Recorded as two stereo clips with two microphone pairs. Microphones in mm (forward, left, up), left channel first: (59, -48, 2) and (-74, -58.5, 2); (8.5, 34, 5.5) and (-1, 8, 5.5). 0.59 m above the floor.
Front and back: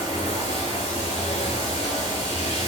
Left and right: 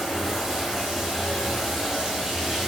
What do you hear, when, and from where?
0.0 s running water: 30° right, 3 m